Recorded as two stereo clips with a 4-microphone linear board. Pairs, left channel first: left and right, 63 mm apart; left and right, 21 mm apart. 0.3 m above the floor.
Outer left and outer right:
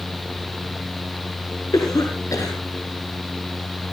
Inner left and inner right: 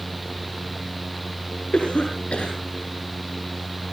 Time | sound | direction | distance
1.7 | a cough | 70° left (ahead or behind) | 4.5 m